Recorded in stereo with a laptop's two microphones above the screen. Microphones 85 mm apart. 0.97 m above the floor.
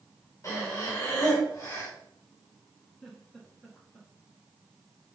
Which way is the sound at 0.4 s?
35° left (ahead or behind).